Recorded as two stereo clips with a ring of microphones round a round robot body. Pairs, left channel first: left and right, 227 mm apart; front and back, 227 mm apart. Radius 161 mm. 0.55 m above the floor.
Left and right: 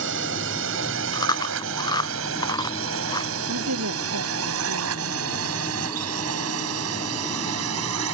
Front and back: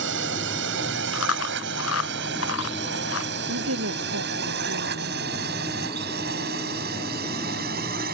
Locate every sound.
0.0 s a drone: 135° right; by 8.1 s 120° right
1.1 s chewing: 15° left
3.5 s a woman speaking: 130° right